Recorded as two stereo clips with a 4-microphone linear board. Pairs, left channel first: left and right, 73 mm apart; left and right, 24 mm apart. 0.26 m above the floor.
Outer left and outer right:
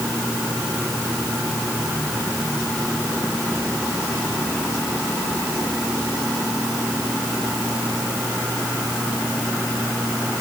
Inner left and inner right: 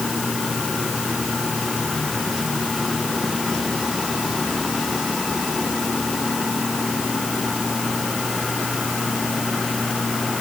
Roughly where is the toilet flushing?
I don't hear a toilet flushing.